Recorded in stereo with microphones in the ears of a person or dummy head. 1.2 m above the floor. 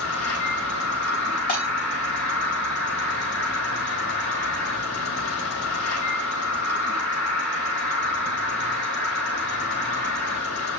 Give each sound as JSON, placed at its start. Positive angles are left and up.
{"t": 0.0, "sound": "an insect", "side_deg": 70, "distance_m": 2.5}
{"t": 1.5, "sound": "breaking glass", "side_deg": 35, "distance_m": 2.5}